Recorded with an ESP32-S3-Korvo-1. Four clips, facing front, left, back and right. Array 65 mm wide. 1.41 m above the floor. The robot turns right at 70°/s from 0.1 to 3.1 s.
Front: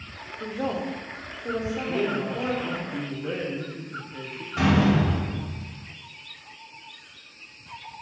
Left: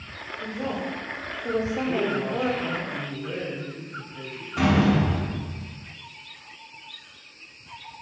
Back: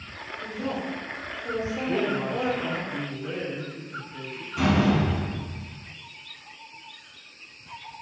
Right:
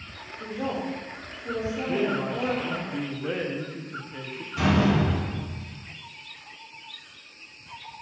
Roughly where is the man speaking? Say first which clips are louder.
Right 2 dB, back 1 dB; behind.